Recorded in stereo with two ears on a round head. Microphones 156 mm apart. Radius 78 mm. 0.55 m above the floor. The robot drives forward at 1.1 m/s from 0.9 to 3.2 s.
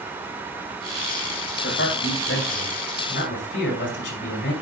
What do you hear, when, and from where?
1.6 s a man speaking: 70° left (ahead or behind), 2.5 m; by 4.5 s 55° left (ahead or behind), 2.5 m